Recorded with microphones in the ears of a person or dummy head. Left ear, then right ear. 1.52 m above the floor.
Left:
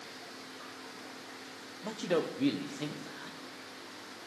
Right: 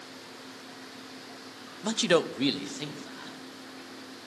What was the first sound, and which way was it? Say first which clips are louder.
A man speaking: right 7 dB; 65° right (ahead or behind).